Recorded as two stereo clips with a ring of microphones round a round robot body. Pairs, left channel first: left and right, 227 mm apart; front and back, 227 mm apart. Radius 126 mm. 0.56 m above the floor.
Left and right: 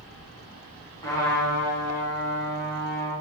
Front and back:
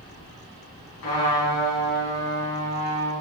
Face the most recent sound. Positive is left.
turn(degrees=15)